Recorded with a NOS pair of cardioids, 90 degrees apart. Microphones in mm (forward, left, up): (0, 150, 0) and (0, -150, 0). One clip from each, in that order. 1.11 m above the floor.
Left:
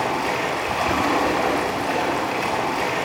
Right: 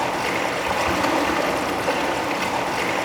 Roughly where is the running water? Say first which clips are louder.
Even; right.